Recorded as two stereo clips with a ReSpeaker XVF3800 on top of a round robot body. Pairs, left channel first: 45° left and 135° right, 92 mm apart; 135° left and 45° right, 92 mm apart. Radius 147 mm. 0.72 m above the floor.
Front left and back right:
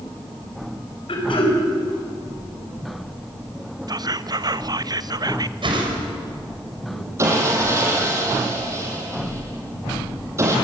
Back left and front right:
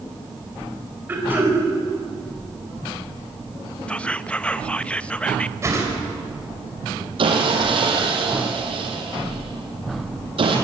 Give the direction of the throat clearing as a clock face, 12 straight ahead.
11 o'clock.